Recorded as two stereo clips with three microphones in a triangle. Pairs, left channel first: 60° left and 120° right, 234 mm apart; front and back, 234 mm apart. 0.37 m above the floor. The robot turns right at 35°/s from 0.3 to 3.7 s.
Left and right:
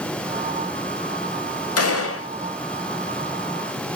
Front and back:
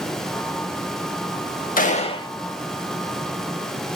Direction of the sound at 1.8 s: 60° left.